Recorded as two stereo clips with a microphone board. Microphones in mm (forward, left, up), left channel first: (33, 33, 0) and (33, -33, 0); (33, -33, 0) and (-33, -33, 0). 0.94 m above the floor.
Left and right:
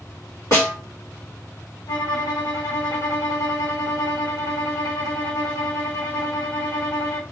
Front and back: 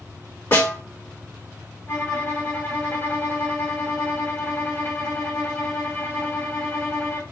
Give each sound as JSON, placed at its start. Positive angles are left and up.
{"t": 0.5, "sound": "a snare drum", "azimuth_deg": 50, "distance_m": 2.0}
{"t": 1.9, "sound": "a violin", "azimuth_deg": 55, "distance_m": 2.0}